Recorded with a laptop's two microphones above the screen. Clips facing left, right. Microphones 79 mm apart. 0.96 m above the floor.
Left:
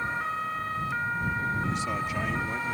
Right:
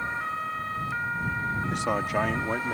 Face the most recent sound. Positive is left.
turn(degrees=-70)  # may be behind; listen again after turning